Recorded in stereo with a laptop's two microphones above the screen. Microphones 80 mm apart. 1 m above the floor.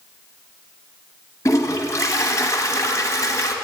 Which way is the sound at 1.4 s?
45° left (ahead or behind).